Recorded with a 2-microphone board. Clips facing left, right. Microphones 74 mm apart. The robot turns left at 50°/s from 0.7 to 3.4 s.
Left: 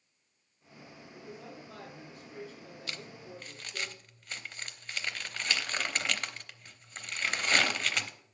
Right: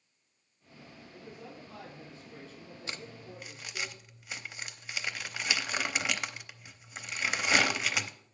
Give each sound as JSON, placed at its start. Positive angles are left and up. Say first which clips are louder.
{"t": 1.1, "sound": "a man speaking", "louder": "left 1 dB", "azimuth_deg": 180, "distance_m": 6.0}
{"t": 2.9, "sound": "crumpling", "louder": "right 1 dB", "side_deg": -25, "distance_m": 0.7}